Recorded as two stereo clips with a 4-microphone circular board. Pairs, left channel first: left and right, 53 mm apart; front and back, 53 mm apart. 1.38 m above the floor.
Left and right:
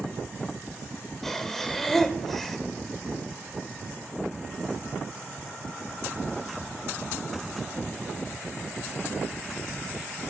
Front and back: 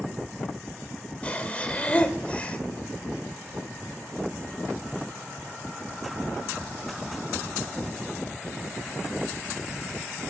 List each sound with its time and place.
1.2 s breathing: 10° left, 1.1 m